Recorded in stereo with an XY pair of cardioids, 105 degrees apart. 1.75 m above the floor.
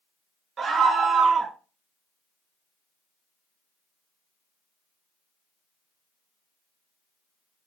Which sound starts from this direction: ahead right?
A scream, at 0.6 s.